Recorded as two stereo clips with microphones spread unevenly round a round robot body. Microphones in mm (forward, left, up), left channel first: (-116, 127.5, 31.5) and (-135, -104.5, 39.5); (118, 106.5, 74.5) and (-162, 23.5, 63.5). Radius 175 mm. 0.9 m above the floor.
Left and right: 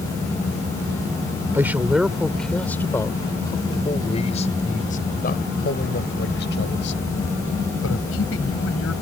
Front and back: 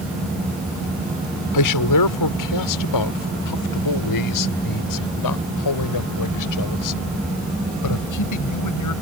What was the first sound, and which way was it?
A man speaking, 10° right.